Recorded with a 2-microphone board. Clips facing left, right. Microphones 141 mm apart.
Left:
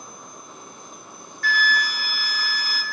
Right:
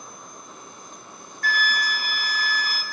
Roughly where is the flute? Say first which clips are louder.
Left 2 dB; right.